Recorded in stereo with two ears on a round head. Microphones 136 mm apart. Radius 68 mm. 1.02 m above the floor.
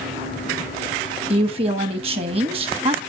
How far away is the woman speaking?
About 1.2 m.